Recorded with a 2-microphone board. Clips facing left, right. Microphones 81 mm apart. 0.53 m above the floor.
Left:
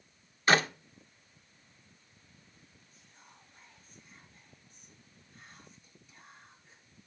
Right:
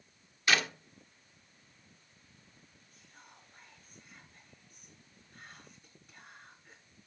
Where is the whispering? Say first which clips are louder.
Right 3 dB; 50° right (ahead or behind), 7 m.